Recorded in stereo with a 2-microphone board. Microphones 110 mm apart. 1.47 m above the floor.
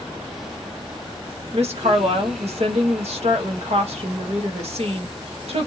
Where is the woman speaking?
70° right (ahead or behind), 1.2 m.